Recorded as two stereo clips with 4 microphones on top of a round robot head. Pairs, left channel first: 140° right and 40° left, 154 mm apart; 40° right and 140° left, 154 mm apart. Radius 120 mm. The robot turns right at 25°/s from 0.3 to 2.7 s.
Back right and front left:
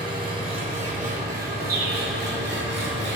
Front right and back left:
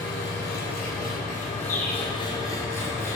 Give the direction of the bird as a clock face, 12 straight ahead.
12 o'clock.